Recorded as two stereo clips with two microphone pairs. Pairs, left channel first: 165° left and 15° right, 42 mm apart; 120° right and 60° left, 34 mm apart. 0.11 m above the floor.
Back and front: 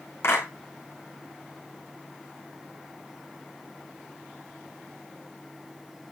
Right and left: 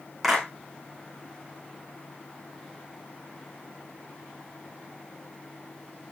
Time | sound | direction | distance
0.2 | a clap | 150° left | 7 m